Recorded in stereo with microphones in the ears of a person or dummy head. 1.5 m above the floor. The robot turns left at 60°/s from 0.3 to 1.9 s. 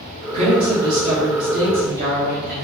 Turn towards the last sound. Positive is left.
turn(degrees=-125)